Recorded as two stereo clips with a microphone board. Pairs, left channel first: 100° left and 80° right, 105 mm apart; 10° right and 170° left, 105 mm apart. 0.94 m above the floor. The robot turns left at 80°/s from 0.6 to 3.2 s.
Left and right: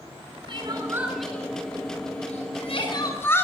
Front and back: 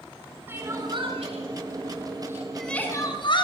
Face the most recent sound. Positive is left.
turn(degrees=30)